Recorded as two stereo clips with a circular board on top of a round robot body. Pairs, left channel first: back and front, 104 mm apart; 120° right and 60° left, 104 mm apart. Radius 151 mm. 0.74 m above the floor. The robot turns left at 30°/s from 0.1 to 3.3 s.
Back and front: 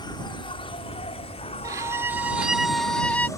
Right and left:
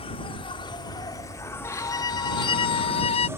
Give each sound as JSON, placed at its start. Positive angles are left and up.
{"t": 0.0, "sound": "an insect", "azimuth_deg": -140}
{"t": 1.6, "sound": "a violin", "azimuth_deg": -55}